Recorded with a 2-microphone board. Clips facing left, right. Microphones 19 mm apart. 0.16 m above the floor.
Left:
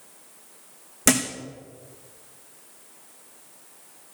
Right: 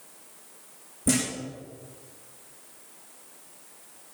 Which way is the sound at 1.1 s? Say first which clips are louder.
Left 4 dB; 80° left.